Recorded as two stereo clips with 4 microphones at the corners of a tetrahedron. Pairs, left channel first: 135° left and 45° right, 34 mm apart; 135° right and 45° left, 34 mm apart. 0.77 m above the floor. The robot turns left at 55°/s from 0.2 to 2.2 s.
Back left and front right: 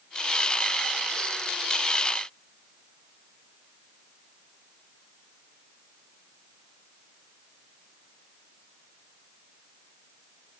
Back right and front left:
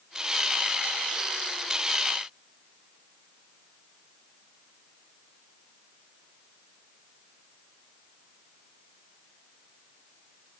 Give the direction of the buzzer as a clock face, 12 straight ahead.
No buzzer in this recording.